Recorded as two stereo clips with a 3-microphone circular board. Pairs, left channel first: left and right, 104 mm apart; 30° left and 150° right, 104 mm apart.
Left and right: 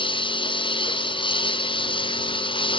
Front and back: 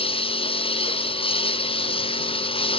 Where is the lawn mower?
55° left.